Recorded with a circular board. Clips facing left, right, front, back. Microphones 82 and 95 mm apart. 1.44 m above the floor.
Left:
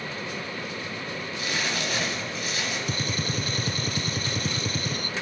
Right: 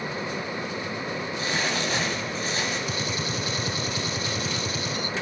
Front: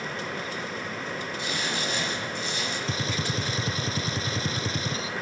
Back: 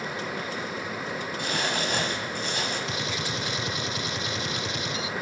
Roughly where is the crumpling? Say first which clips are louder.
Right 2 dB, back 4 dB; behind right.